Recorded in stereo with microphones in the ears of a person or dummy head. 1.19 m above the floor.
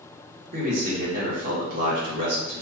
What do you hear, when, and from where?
0.5 s a man speaking: 55° right (ahead or behind), 1.4 m